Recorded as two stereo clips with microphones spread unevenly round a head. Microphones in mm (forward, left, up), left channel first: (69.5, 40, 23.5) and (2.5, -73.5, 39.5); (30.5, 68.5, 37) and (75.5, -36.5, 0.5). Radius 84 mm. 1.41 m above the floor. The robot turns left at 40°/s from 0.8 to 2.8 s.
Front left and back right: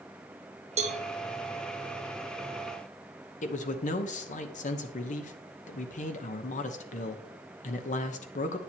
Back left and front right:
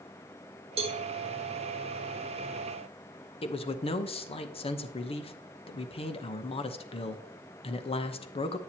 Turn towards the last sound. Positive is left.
turn(degrees=70)